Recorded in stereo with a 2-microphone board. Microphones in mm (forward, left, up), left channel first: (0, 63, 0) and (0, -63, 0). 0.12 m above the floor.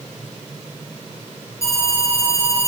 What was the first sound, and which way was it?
An alarm, 25° left (ahead or behind).